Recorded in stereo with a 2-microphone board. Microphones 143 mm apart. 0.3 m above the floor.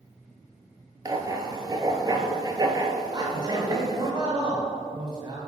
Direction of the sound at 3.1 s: 35° right (ahead or behind).